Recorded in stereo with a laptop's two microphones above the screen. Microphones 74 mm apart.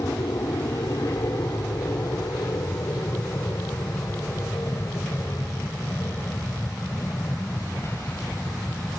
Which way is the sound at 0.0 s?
55° left (ahead or behind).